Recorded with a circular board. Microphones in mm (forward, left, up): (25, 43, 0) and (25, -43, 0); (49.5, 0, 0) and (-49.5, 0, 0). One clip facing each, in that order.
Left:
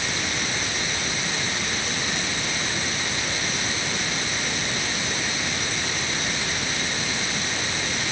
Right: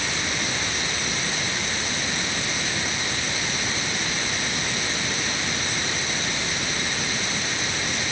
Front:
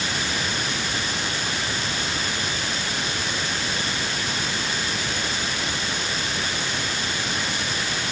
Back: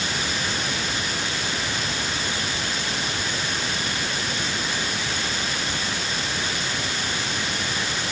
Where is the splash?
I don't hear a splash.